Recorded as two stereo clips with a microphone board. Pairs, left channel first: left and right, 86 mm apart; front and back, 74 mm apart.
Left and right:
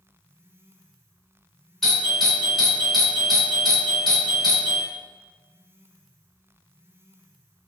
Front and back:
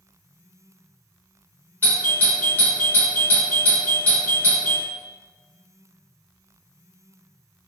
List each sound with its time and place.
1.8 s a doorbell: 10° left, 1.5 m